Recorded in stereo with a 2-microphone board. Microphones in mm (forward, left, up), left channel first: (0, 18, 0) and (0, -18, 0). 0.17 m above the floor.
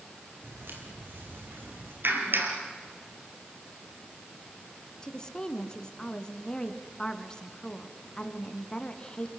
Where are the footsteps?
75° right (ahead or behind), 7.5 m.